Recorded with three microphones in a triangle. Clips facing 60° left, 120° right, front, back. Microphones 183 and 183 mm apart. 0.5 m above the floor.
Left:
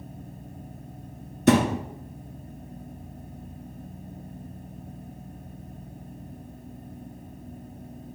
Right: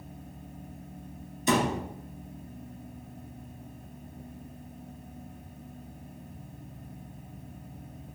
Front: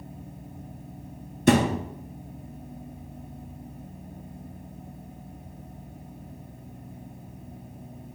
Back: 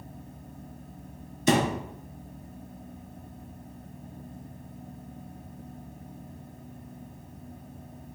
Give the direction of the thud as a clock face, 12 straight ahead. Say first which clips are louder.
Left 7 dB, front 4 dB; 11 o'clock.